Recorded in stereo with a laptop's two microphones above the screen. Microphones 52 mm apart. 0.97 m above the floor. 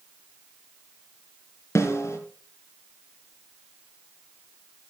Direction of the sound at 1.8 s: 65° left (ahead or behind).